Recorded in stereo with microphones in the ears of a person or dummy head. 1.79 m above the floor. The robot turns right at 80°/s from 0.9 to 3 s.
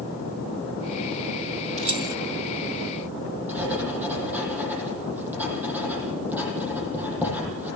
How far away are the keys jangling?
About 1.6 m.